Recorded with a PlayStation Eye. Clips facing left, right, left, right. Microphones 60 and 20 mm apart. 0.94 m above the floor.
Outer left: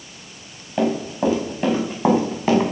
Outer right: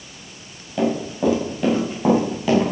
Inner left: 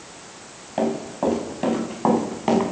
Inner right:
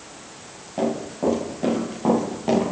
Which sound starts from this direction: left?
Running footsteps, at 0.8 s.